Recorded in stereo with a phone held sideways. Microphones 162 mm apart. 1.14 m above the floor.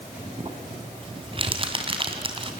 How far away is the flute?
No flute in this recording.